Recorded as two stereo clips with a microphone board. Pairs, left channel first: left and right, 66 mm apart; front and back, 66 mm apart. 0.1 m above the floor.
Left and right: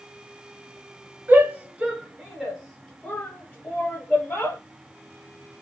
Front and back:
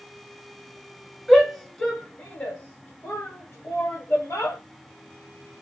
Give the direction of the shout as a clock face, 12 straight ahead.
3 o'clock.